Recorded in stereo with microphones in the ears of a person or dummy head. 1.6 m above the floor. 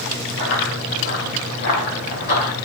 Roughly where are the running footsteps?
Left.